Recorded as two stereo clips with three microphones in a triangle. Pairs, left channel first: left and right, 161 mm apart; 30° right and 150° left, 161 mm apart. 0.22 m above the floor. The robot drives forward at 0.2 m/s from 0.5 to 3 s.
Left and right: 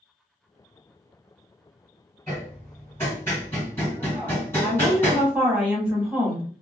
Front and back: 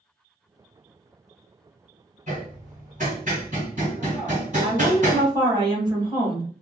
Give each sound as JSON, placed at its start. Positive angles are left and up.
{"t": 2.3, "sound": "hammering", "azimuth_deg": 160, "distance_m": 1.7}
{"t": 4.6, "sound": "a woman speaking", "azimuth_deg": -165, "distance_m": 1.2}